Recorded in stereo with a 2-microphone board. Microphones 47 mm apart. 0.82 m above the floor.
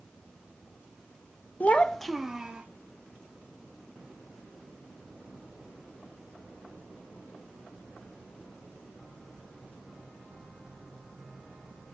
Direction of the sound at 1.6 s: 35° left (ahead or behind).